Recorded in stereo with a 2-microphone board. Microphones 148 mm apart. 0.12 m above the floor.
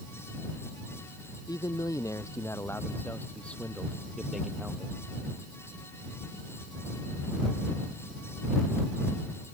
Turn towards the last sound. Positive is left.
turn(degrees=-10)  # may be behind; listen again after turning